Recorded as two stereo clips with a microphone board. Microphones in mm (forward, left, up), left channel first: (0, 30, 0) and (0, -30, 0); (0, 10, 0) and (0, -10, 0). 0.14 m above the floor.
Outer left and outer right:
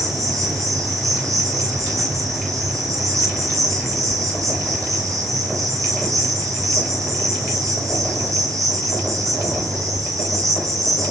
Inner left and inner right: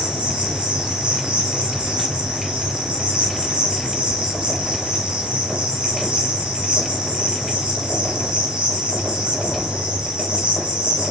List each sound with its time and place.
0.0 s an insect: 60° right (ahead or behind), 3.5 m